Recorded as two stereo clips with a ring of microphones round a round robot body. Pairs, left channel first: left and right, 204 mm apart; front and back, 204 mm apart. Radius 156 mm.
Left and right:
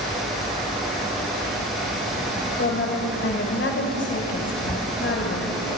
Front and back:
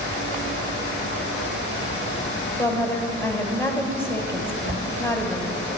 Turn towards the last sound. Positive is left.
turn(degrees=145)